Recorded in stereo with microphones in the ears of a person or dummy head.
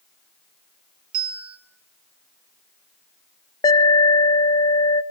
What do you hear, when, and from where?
1.1 s a bell: 25° right (ahead or behind), 4 m
3.6 s an alarm: 20° left (ahead or behind), 1.0 m